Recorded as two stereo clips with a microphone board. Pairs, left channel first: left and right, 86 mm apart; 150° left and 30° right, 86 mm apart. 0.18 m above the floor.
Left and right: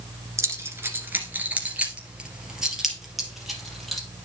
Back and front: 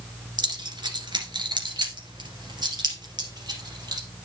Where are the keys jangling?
40° right, 1.8 m; by 4.0 s 5° left, 3.5 m.